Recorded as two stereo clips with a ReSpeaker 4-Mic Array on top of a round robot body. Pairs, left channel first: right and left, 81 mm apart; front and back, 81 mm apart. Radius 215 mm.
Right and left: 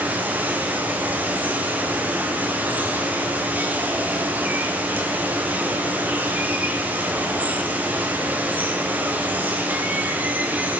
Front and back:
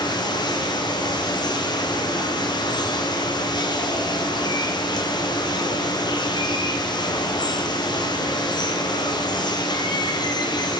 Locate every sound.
0.0 s running water: 20° left, 2 m